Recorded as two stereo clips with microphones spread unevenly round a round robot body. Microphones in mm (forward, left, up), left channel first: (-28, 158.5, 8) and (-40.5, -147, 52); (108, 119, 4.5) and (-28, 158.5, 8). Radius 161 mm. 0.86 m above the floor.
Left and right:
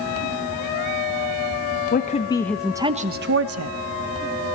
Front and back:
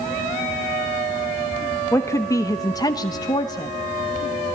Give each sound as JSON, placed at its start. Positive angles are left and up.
{"t": 1.9, "sound": "a woman speaking", "azimuth_deg": 50, "distance_m": 1.2}